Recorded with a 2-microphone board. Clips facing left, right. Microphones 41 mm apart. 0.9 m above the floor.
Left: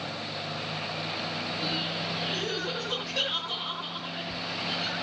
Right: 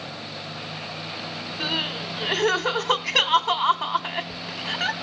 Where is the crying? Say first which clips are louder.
Right 8 dB; 80° right, 2.5 m.